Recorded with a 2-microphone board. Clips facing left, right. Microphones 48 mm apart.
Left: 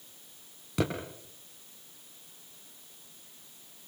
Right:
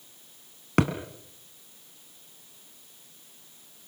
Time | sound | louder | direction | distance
0.8 | a thud | right 6 dB | 55° right (ahead or behind) | 3 m